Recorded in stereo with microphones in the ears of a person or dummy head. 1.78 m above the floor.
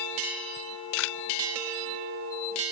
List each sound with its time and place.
0.6 s a camera shutter: 70° left (ahead or behind)